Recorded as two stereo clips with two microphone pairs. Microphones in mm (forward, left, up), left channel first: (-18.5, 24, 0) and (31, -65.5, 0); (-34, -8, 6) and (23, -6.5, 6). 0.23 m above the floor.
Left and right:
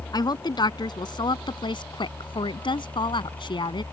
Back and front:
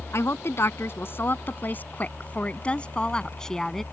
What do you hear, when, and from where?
0.1 s a woman speaking: 155° left; by 3.8 s 100° left